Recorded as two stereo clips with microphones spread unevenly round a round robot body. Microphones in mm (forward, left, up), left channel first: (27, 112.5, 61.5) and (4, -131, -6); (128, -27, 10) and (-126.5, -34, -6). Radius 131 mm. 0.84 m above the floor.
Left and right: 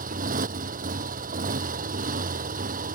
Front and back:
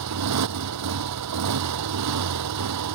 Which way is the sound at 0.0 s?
155° right.